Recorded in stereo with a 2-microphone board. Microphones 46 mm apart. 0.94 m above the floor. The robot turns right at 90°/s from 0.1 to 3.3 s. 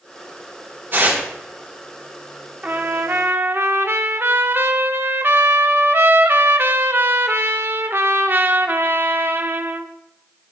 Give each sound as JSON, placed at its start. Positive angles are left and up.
{"t": 0.9, "sound": "tearing paper", "side_deg": -40, "distance_m": 4.5}
{"t": 2.6, "sound": "a trumpet", "azimuth_deg": -140, "distance_m": 0.6}